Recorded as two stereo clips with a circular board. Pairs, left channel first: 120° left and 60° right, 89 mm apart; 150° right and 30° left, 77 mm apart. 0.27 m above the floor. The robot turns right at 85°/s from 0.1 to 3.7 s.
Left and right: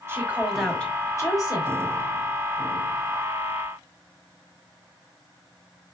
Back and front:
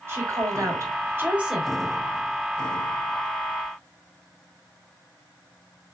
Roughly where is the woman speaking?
Ahead.